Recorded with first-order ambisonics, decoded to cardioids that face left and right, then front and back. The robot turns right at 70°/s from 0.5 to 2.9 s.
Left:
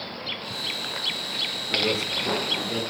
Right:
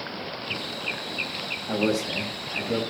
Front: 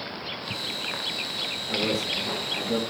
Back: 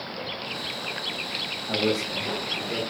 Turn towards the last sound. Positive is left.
turn(degrees=-40)